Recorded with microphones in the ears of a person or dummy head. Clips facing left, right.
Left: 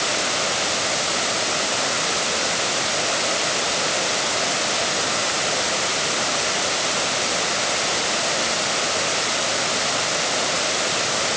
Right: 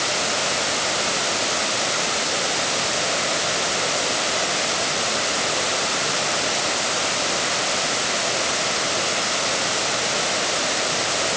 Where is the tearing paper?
I don't hear tearing paper.